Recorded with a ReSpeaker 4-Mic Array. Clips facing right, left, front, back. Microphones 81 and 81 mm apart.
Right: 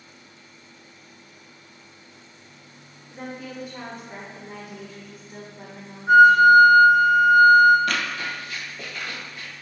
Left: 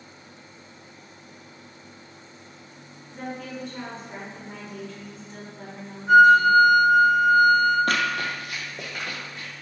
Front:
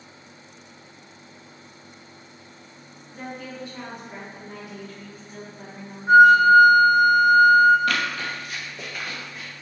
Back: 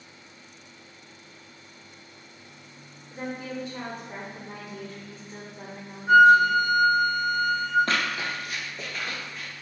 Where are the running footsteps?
125° left, 0.6 m; by 9.5 s 75° left, 2 m.